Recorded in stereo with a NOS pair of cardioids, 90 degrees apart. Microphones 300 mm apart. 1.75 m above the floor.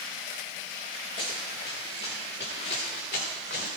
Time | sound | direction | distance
1.2 | running footsteps | 35° left | 7 m